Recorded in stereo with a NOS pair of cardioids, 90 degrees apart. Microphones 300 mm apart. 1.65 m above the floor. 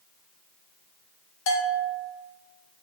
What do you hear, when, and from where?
1.5 s a bell: 45° left, 0.8 m